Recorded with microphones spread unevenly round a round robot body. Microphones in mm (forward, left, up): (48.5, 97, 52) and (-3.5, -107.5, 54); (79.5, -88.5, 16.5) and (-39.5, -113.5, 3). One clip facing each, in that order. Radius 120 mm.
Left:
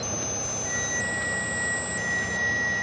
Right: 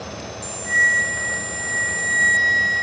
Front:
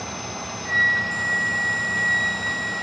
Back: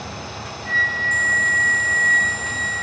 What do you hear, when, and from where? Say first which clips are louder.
0.7 s a flute: right 1 dB, back 1 dB; 35° right, 7 m